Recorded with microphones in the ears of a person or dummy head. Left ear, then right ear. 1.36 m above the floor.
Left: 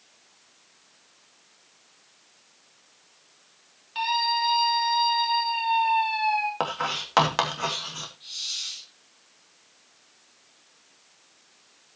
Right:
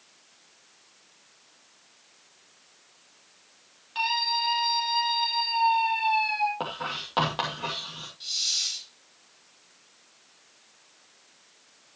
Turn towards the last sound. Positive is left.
turn(degrees=-65)  # may be behind; listen again after turning